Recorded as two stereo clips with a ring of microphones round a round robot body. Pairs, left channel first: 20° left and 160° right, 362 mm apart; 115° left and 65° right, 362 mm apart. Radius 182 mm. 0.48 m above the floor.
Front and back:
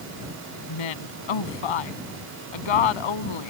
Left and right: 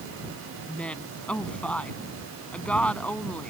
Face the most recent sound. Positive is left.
turn(degrees=25)